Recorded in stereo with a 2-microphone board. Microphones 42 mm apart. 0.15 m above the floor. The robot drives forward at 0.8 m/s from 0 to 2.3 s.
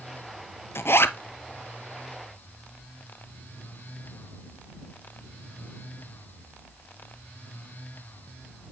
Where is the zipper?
70° left (ahead or behind), 0.6 m; by 1.2 s 65° left (ahead or behind), 0.6 m.